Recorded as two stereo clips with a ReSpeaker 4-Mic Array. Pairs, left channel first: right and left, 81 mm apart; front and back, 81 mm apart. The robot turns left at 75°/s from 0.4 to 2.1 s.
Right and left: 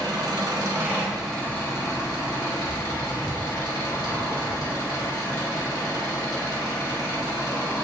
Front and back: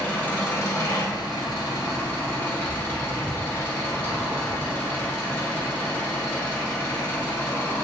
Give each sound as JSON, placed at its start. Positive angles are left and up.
{"t": 0.0, "sound": "an engine running", "azimuth_deg": 65, "distance_m": 0.9}